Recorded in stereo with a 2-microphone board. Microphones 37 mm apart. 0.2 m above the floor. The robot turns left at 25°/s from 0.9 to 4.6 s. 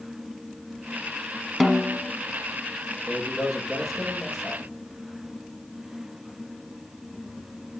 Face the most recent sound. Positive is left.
turn(degrees=-15)